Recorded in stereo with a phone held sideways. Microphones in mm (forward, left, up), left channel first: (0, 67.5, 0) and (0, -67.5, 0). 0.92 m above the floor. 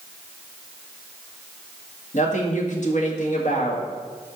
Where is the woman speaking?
65° left (ahead or behind), 1.8 m.